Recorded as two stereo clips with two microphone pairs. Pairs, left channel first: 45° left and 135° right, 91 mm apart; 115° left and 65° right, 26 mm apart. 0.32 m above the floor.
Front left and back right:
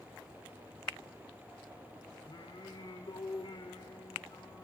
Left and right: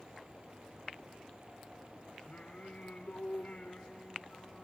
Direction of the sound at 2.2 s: 65° left.